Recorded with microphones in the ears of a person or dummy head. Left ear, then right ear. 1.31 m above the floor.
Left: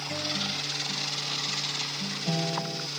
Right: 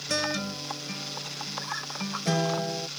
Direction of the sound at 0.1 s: 50° right (ahead or behind).